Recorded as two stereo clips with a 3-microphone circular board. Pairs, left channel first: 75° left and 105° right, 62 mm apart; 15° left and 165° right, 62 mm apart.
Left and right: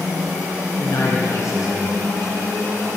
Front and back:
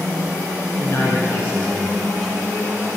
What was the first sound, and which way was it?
A man speaking, 55° left.